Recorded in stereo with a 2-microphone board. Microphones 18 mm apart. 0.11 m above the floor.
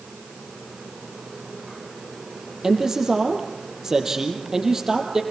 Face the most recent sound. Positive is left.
turn(degrees=-25)  # may be behind; listen again after turning